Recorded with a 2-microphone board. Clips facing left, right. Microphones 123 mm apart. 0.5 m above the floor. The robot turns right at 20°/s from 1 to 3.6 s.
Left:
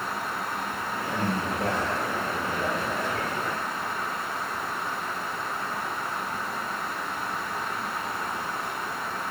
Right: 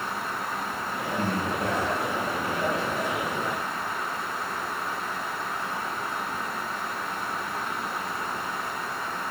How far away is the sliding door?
No sliding door in this recording.